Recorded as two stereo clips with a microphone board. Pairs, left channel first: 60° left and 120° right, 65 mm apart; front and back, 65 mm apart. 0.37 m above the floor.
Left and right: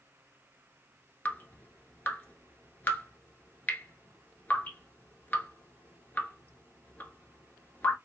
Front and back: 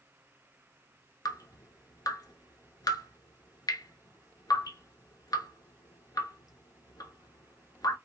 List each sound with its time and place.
1.2 s dripping: straight ahead, 0.7 m